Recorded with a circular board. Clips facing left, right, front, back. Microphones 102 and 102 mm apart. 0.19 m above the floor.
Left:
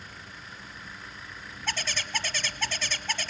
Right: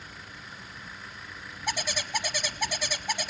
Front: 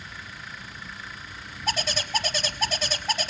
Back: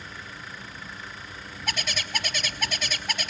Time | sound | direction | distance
1.7 | a bird | 25° right | 0.7 m